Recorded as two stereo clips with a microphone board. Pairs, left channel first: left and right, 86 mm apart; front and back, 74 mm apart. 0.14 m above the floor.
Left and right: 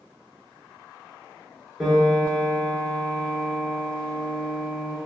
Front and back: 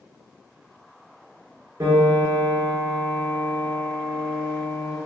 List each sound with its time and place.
1.8 s a piano: straight behind, 1.2 m